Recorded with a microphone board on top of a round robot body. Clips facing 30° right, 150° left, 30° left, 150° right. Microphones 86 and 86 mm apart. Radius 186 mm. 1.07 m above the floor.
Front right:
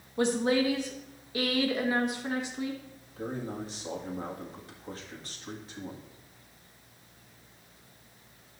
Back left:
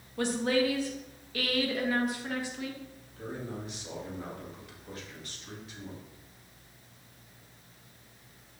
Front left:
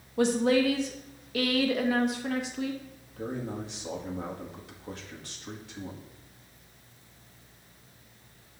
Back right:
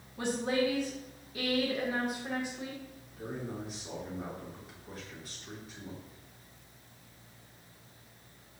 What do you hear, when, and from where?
0.2 s a woman speaking: 40° left, 1.3 m
3.2 s a man speaking: 25° left, 1.9 m